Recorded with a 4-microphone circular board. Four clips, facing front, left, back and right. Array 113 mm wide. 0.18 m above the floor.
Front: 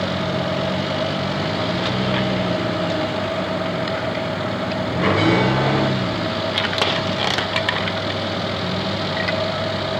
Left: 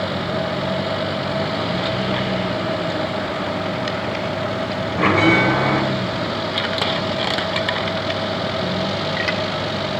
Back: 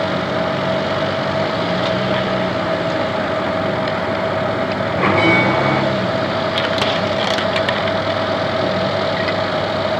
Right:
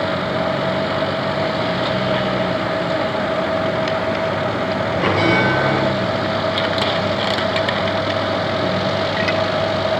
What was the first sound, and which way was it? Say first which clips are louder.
A bell: left 2 dB, back 2 dB; 150° left.